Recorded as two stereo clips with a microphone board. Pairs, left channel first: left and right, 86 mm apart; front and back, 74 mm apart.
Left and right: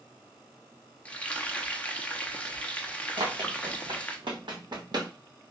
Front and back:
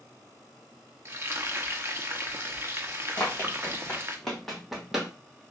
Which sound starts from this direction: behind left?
Frying, at 1.1 s.